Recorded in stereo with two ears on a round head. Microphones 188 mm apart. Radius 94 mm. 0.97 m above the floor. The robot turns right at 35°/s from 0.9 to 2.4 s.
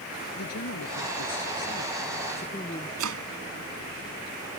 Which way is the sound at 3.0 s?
75° right (ahead or behind).